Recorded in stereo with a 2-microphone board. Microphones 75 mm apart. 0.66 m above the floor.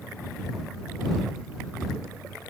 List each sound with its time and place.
Only background noise.